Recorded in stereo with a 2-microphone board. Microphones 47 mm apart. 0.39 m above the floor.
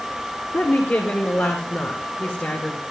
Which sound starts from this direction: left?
A woman speaking, at 0.5 s.